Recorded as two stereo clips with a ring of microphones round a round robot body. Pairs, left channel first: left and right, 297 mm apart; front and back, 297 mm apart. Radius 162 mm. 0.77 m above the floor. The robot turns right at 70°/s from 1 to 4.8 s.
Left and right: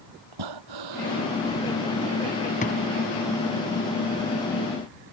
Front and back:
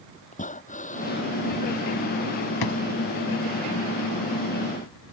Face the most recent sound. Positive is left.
turn(degrees=175)